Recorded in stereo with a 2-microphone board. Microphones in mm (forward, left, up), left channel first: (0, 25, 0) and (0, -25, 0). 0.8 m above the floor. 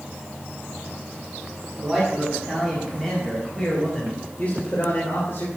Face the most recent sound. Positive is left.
turn(degrees=70)  # may be behind; listen again after turning